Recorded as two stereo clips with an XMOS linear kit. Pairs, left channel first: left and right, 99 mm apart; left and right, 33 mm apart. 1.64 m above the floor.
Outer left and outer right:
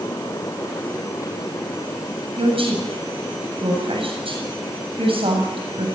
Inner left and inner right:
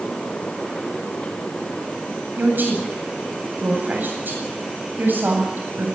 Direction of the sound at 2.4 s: 70° right (ahead or behind).